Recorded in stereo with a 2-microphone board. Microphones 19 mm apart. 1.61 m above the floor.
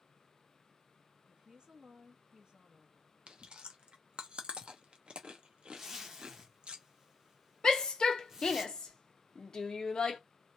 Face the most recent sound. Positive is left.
turn(degrees=45)  # may be behind; listen again after turning